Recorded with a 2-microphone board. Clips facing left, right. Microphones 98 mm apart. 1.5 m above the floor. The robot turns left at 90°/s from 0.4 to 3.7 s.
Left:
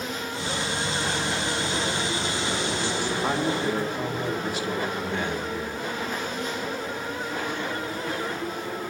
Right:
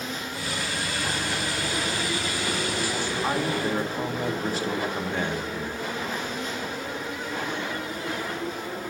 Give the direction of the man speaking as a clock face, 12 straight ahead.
12 o'clock.